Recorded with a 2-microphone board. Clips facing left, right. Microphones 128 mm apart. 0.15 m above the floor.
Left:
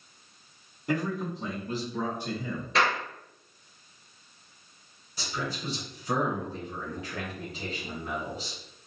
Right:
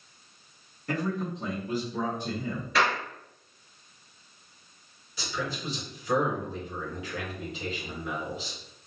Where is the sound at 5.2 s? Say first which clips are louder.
Right 1 dB; 40° left (ahead or behind), 1.6 m.